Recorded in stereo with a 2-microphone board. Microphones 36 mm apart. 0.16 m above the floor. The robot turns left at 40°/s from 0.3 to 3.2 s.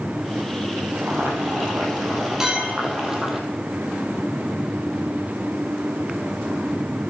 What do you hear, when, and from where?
1.0 s boiling: 80° right, 2 m; by 3.4 s 165° right, 2 m
2.4 s a clink: 15° right (ahead or behind), 2.5 m; by 2.9 s 35° right (ahead or behind), 2.5 m